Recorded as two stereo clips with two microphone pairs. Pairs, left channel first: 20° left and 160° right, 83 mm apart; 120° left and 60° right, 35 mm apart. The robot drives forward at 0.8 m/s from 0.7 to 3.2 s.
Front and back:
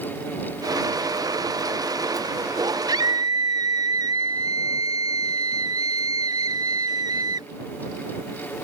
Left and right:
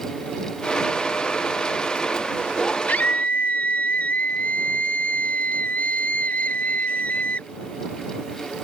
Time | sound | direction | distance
2.9 | a scream | 160° left | ?